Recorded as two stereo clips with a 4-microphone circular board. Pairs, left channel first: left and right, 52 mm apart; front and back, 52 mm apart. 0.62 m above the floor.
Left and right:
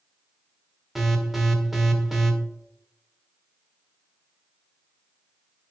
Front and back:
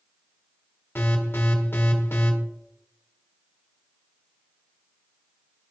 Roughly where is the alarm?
Ahead.